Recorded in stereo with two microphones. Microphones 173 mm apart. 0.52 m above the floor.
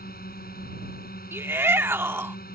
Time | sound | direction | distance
0.0 | a drone | 65° left (ahead or behind) | ?
1.3 | a shout | 15° right (ahead or behind) | ?